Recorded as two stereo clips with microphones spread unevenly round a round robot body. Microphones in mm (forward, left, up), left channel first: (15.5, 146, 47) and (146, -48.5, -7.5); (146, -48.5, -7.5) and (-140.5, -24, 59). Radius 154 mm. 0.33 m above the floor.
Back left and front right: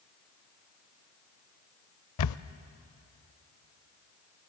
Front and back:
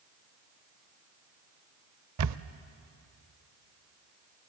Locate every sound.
2.2 s a camera shutter: 135° left, 0.5 m